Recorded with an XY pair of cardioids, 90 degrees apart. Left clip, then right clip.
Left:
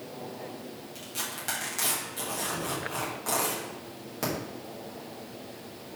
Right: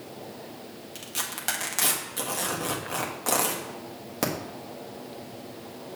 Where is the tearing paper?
50° right, 1.4 m.